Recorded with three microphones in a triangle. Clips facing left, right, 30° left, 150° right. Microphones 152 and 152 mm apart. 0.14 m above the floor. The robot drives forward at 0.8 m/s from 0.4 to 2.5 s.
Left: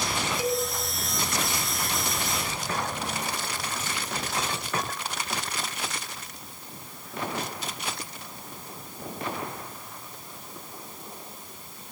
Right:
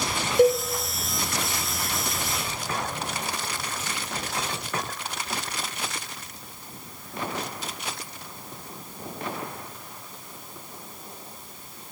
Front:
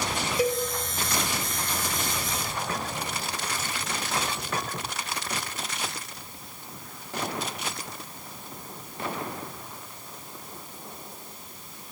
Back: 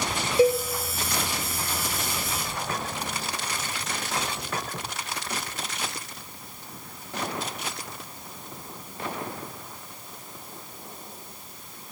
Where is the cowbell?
90° right, 3 m; by 0.6 s 95° right, 3 m.